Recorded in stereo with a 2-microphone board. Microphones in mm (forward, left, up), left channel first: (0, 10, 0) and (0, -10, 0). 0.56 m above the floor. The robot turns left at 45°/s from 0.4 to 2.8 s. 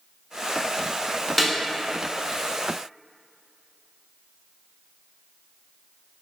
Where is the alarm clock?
No alarm clock in this recording.